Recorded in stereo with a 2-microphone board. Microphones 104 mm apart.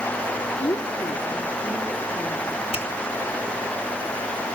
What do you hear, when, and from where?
0.6 s a woman speaking: 55° left (ahead or behind), 3.5 m
2.7 s a finger snap: 80° left, 6 m